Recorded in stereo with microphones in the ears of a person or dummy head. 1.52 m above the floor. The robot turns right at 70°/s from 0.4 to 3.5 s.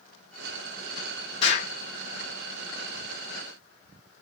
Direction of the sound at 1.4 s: 35° left (ahead or behind).